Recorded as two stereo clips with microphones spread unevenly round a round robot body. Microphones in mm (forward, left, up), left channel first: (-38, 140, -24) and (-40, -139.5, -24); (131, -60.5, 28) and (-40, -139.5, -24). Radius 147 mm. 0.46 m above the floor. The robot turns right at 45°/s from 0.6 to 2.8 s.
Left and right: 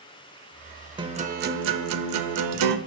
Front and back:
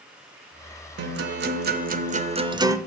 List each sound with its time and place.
1.0 s a guitar: 165° right, 0.6 m; by 2.8 s 85° right, 0.6 m